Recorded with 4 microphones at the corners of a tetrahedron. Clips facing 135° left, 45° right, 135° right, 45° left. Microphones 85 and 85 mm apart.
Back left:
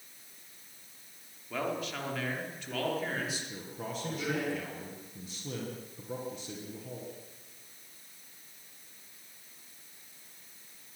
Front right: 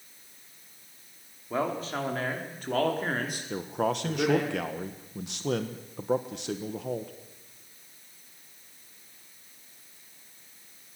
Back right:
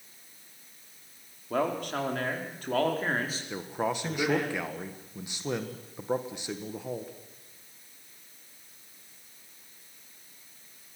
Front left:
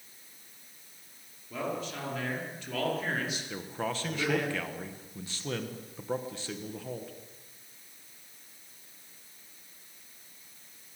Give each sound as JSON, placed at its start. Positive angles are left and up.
{"t": 1.5, "sound": "a man speaking", "azimuth_deg": -105, "distance_m": 4.5}
{"t": 3.5, "sound": "a man speaking", "azimuth_deg": -60, "distance_m": 1.4}